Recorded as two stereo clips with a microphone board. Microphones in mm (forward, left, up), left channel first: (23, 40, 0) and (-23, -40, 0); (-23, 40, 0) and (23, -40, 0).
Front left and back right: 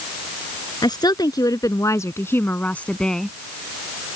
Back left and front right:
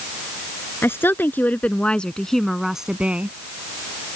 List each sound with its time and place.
0.8 s a woman speaking: 65° left; by 3.4 s 25° right